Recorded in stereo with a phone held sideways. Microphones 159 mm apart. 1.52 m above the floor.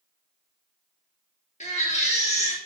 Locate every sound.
1.6 s a baby crying: 45° left (ahead or behind), 2.5 m